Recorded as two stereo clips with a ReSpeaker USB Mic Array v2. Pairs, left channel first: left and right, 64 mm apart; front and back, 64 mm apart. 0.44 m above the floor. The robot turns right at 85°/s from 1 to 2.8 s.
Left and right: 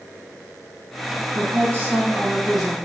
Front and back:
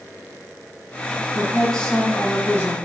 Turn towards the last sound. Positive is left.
turn(degrees=20)